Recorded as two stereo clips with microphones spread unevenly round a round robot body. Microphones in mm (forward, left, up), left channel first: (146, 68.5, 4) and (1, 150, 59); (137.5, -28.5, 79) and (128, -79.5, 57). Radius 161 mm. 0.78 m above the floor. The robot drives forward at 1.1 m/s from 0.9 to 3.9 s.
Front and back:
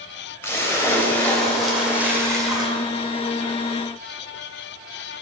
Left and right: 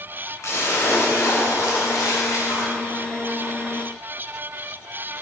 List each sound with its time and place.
0.4 s a splash: 45° left, 3.5 m; by 2.7 s 85° left, 2.5 m